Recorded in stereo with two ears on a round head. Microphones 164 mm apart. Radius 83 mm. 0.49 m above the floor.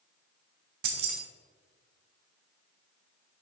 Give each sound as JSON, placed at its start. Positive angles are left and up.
{"t": 0.8, "sound": "keys jangling", "side_deg": -55, "distance_m": 1.0}